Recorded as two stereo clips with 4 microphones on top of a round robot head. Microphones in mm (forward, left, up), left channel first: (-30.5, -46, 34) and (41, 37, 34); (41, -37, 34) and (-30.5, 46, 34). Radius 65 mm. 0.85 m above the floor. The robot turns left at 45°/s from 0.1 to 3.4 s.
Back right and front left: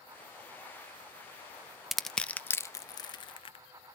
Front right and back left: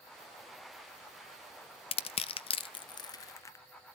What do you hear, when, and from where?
1.9 s crushing: 40° right, 0.7 m; by 3.6 s 105° right, 0.7 m